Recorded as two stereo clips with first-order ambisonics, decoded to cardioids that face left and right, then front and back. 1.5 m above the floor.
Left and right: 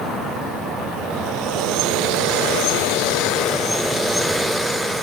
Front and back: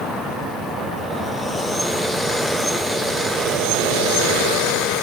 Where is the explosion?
I don't hear an explosion.